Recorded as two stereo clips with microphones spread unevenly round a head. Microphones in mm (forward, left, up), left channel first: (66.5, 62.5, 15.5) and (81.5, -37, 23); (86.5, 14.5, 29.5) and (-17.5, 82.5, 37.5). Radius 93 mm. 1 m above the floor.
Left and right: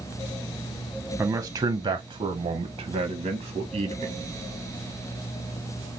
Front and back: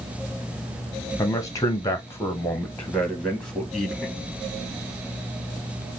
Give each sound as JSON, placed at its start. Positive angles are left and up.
{"t": 1.2, "sound": "a man speaking", "azimuth_deg": -20, "distance_m": 0.9}